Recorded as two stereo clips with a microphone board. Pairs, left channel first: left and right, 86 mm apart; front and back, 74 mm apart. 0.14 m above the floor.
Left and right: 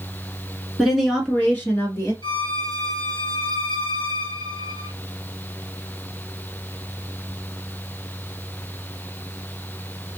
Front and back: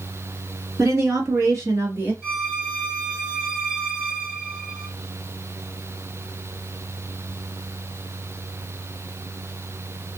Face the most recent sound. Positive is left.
turn(degrees=90)